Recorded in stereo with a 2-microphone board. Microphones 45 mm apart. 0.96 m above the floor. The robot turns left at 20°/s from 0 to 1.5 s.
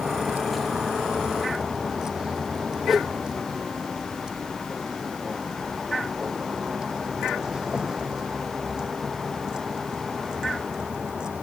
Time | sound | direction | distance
0.0 | a vehicle | 40° right (ahead or behind) | ?
2.9 | a whoosh | centre (ahead or behind) | ?